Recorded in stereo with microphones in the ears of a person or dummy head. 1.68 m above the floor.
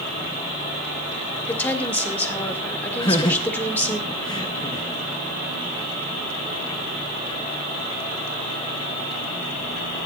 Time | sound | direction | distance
1.5 | a woman speaking | 15° left (ahead or behind) | 1.8 m
3.0 | laughter | 20° left (ahead or behind) | 1.1 m